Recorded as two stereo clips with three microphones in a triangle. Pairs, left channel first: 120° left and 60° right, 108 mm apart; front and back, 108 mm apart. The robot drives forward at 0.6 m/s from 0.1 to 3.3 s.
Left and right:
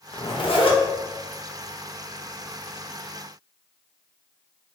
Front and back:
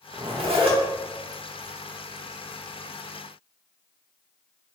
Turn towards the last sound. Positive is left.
turn(degrees=165)